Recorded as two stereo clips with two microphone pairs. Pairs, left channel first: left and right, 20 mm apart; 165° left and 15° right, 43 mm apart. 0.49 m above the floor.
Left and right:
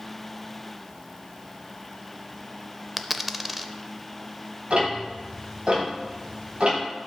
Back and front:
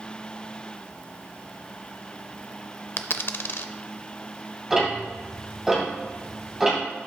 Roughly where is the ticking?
Right.